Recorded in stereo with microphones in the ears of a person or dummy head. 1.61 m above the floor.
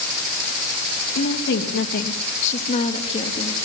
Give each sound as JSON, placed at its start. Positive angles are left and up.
{"t": 1.1, "sound": "a woman speaking", "side_deg": 70, "distance_m": 2.5}